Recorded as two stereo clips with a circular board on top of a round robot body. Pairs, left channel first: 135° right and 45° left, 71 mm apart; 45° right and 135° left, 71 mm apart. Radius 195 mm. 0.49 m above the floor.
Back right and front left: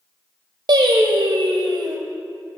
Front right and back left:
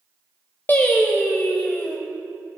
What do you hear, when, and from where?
0.7 s singing: 20° left, 0.7 m